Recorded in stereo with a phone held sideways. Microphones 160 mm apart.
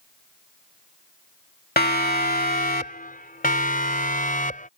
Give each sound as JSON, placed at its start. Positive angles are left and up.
{"t": 1.8, "sound": "a siren", "side_deg": 75}